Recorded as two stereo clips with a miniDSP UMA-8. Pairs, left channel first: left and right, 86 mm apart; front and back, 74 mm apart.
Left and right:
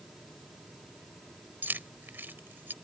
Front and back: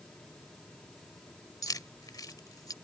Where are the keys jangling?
25° right.